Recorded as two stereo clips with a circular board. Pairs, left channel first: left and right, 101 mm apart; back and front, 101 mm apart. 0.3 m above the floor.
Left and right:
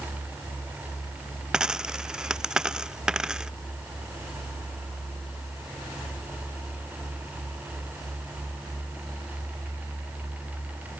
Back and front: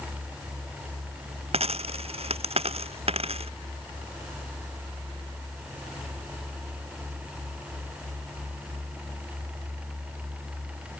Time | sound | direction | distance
1.5 | a dropped coin | 5° right | ?